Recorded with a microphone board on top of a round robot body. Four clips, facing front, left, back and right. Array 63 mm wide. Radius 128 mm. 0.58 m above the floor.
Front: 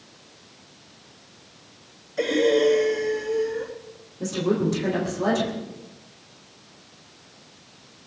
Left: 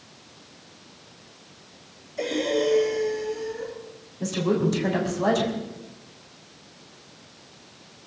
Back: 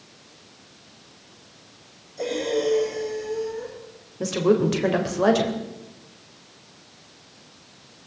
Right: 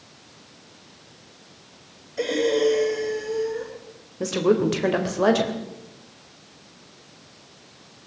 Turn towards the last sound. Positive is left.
turn(degrees=-125)